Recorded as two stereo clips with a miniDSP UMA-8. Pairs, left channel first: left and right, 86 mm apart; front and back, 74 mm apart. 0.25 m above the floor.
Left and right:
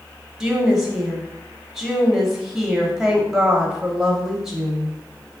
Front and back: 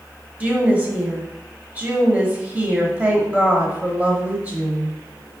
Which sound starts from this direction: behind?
A woman speaking, at 0.4 s.